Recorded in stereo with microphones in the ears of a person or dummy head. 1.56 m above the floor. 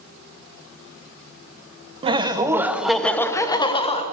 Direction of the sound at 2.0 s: 35° right (ahead or behind).